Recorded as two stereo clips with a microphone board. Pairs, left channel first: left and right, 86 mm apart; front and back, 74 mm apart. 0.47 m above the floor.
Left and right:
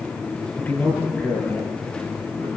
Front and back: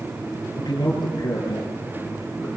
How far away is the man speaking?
About 8 m.